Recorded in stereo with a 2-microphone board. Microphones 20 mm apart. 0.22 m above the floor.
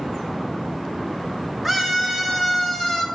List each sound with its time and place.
1.6 s a scream: 10° right (ahead or behind), 2 m; by 3.0 s 20° left (ahead or behind), 1.7 m